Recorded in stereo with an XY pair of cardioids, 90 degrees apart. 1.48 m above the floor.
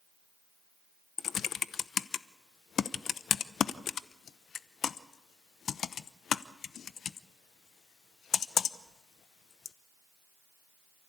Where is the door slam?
I don't hear a door slam.